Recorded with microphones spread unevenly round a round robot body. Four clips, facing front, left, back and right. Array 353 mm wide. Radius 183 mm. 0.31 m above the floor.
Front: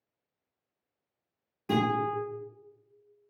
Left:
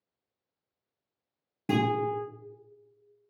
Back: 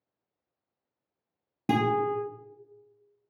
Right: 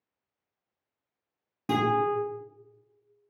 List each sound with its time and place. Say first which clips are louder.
1.7 s a guitar: right 2 dB, back 2 dB; straight behind, 0.8 m